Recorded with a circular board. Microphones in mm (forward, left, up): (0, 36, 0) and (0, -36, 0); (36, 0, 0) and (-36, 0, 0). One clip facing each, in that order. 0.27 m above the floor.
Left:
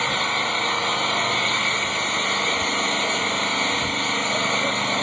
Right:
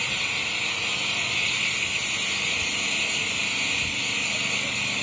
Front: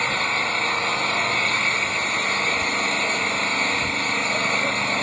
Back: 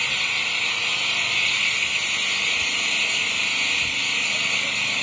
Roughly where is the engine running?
Ahead left.